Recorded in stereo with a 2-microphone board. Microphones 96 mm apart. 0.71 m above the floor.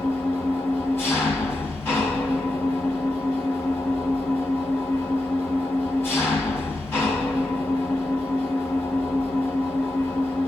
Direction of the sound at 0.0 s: 25° left (ahead or behind).